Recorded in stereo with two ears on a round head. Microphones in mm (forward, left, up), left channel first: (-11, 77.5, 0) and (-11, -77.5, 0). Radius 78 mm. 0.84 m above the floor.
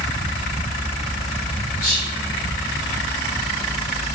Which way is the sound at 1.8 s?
45° left (ahead or behind).